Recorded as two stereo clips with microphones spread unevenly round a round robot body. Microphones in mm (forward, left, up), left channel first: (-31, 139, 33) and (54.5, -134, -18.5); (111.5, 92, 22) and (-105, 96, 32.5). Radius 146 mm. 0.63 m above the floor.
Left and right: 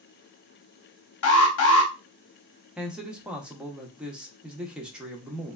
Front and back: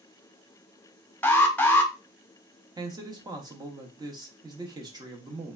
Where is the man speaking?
130° right, 0.6 m.